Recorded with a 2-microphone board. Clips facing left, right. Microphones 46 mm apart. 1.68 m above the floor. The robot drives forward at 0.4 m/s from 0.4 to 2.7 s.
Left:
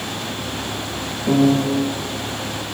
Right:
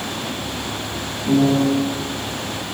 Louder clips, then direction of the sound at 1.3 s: Even; 65° left (ahead or behind).